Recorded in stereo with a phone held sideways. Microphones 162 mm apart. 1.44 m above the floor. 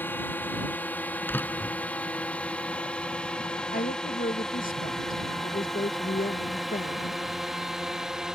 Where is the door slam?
10° left (ahead or behind).